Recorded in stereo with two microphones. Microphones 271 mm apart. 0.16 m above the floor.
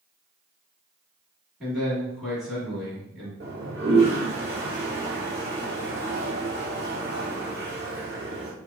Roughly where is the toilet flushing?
Right.